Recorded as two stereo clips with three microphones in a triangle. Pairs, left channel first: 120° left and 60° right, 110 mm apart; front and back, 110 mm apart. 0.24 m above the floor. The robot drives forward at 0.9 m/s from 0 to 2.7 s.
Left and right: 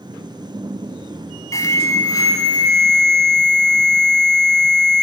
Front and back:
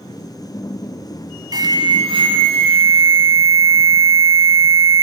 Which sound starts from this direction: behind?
An alarm, at 1.5 s.